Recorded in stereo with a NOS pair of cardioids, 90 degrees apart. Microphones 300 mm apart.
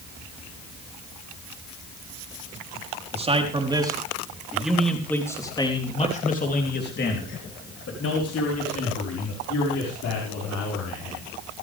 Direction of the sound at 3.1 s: 20° right.